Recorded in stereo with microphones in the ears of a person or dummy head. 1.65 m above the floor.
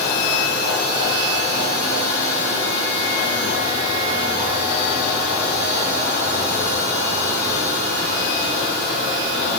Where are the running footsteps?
No running footsteps in this recording.